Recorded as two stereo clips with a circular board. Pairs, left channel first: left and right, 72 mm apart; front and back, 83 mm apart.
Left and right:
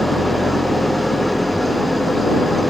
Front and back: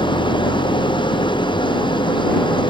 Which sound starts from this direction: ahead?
An engine running, at 0.0 s.